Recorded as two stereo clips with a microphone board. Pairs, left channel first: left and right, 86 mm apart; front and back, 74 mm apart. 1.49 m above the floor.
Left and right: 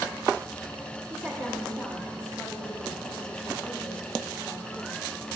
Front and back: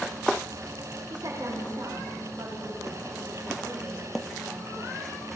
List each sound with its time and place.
1.1 s a woman speaking: 160° right, 3.5 m; by 5.1 s 150° left, 5 m